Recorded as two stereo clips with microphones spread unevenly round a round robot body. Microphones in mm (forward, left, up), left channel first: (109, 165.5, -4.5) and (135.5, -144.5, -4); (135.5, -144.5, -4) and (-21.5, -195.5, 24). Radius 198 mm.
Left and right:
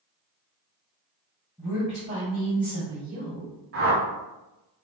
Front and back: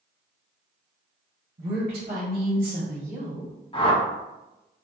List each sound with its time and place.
1.6 s a woman speaking: 175° right, 1.6 m; by 3.5 s 110° right, 1.6 m
3.7 s a whoosh: 40° right, 1.2 m